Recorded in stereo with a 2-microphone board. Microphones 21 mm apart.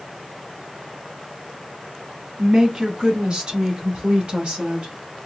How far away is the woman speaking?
About 2.5 m.